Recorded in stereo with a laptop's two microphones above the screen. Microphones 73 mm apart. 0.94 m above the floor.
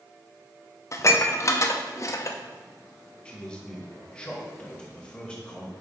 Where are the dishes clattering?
40° left (ahead or behind), 0.6 m.